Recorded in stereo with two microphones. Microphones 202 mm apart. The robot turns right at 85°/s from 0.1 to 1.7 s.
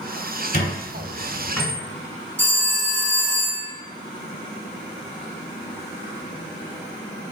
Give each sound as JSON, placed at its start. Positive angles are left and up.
{"t": 0.5, "sound": "a squeak", "side_deg": 45, "distance_m": 1.7}
{"t": 2.4, "sound": "a phone ringing", "side_deg": -65, "distance_m": 1.7}